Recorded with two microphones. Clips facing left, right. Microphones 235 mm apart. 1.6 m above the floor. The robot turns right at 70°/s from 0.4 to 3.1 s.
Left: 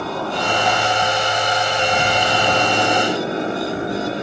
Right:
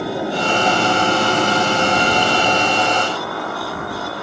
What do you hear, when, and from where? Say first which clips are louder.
0.0 s a motorcycle: right 3 dB; 165° right; by 4.2 s 25° left